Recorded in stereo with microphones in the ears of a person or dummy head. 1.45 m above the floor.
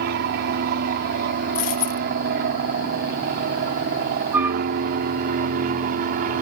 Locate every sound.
0.0 s an aircraft: 55° right (ahead or behind); by 6.4 s 50° right (ahead or behind)
1.6 s a dropped coin: 45° left (ahead or behind)
4.3 s a flute: 10° right (ahead or behind)